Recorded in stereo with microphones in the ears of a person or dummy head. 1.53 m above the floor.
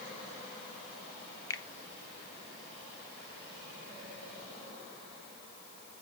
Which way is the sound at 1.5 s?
20° left (ahead or behind).